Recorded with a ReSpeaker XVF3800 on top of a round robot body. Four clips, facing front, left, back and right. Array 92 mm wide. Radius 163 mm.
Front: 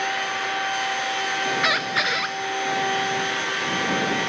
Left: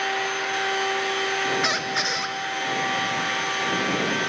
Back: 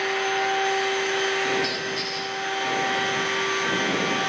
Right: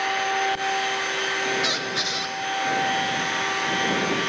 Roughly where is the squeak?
Ahead left.